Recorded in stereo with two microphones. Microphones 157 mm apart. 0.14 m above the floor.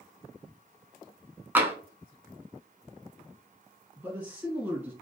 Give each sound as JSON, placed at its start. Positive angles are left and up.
{"t": 1.6, "sound": "tapping", "side_deg": -10, "distance_m": 0.6}
{"t": 4.0, "sound": "a man speaking", "side_deg": -10, "distance_m": 1.5}